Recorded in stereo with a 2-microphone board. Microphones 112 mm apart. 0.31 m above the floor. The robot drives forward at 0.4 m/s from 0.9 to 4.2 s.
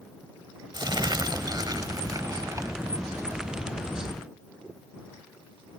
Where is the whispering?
No whispering in this recording.